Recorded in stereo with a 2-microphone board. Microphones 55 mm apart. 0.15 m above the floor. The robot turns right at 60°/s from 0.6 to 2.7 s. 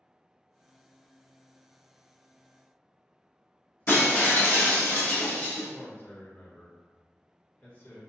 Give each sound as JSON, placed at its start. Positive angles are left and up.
{"t": 3.9, "sound": "breaking glass", "side_deg": 35, "distance_m": 1.2}
{"t": 5.7, "sound": "a man speaking", "side_deg": 35, "distance_m": 1.5}